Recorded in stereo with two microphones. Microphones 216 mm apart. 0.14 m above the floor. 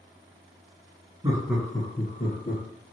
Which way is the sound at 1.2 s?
20° right (ahead or behind).